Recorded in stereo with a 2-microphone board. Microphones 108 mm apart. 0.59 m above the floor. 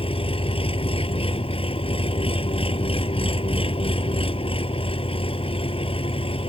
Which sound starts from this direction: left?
An engine running, at 0.0 s.